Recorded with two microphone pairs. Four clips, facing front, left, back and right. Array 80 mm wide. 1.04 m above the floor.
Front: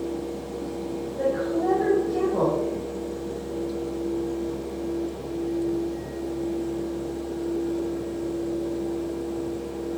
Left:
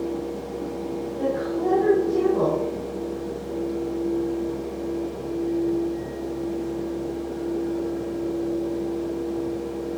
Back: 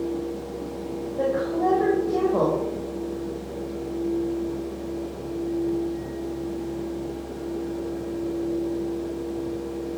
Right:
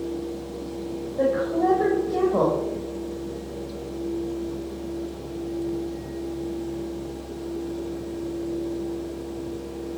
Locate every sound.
1.2 s a woman speaking: 125° right, 5.5 m